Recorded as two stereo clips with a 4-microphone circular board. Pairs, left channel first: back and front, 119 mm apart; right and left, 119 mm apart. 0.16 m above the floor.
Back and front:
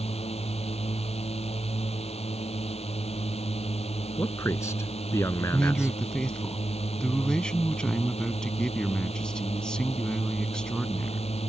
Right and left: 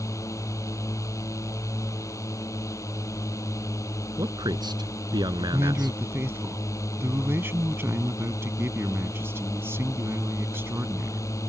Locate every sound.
0.0 s a drone: 150° right
4.2 s a man speaking: 125° left
5.5 s a man speaking: 110° left